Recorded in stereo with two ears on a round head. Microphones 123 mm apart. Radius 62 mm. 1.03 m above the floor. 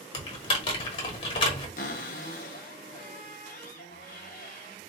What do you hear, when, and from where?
0.1 s typing on a keyboard: 40° left (ahead or behind), 1.0 m
1.8 s a cupboard door: 60° left (ahead or behind), 0.7 m